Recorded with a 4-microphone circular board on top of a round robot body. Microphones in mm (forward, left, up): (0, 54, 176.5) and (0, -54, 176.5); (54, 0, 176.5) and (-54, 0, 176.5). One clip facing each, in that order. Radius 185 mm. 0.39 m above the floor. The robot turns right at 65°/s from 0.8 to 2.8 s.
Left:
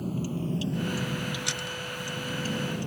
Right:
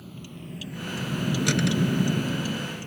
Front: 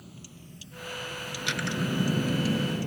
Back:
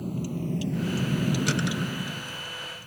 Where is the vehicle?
140° left; by 2.9 s 20° left.